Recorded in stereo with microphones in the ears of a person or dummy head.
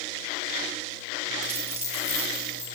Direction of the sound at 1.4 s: 15° right (ahead or behind).